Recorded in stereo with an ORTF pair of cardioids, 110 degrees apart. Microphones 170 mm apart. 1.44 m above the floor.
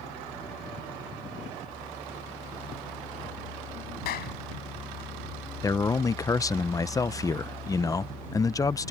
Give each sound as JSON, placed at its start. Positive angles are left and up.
{"t": 4.0, "sound": "a clap", "azimuth_deg": 70}
{"t": 5.6, "sound": "a man speaking", "azimuth_deg": 20}